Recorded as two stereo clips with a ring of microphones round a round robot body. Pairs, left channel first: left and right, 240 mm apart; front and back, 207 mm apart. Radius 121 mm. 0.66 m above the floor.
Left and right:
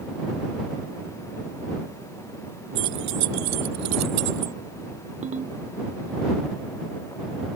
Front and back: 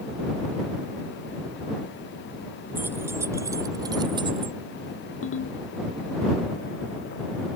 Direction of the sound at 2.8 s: 100° right.